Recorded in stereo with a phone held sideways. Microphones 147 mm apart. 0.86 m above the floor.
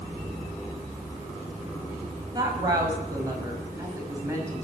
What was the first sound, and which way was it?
A woman speaking, 30° right (ahead or behind).